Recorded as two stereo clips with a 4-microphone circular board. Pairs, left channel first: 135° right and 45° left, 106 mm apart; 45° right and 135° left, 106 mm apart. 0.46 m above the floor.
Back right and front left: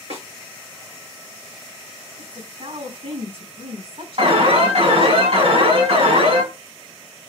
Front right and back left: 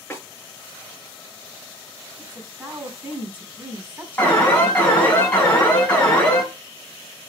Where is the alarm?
30° left, 4.5 m.